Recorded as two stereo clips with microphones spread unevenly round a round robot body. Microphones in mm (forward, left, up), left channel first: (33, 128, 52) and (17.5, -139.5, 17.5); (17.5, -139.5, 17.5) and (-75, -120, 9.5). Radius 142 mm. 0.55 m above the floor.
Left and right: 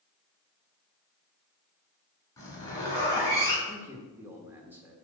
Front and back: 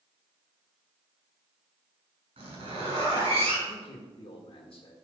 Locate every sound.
2.4 s a zipper: 165° left, 4.5 m
3.7 s a man speaking: 15° right, 1.4 m